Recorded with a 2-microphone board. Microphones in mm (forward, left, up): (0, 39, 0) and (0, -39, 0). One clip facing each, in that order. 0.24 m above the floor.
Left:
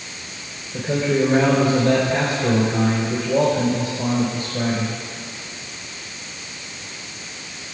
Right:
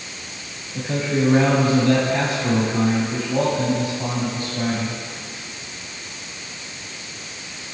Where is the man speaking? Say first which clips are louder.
Left 3 dB; 65° left (ahead or behind), 5 m.